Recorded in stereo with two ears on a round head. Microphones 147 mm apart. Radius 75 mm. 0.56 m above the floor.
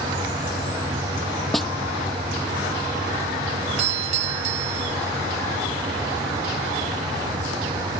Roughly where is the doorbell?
Right.